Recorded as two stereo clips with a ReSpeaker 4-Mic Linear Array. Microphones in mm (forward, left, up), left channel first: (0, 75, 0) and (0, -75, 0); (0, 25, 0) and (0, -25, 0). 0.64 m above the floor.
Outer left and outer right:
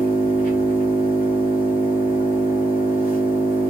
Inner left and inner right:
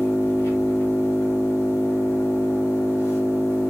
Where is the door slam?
I don't hear a door slam.